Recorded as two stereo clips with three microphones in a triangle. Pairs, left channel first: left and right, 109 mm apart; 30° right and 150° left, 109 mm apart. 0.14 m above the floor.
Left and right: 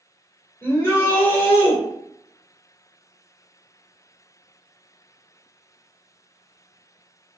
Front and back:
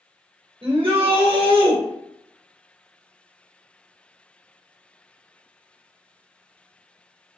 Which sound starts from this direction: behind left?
A shout, at 0.6 s.